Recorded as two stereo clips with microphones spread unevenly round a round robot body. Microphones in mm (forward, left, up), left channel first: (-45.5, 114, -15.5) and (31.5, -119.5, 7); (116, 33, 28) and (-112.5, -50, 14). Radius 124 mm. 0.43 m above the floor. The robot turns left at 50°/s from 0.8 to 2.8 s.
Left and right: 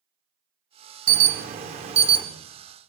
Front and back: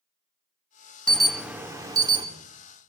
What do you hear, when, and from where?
1.1 s an alarm: 70° right, 1.6 m; by 2.2 s 130° right, 1.6 m